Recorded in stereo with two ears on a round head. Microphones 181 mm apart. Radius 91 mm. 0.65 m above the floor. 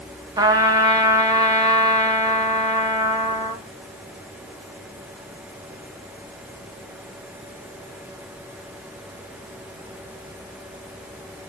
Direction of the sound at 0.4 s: 20° right (ahead or behind).